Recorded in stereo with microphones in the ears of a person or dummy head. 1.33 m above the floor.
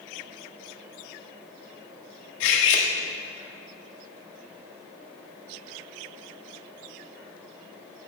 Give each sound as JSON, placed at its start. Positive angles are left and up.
{"t": 2.4, "sound": "cutlery clinking", "side_deg": 70, "distance_m": 1.8}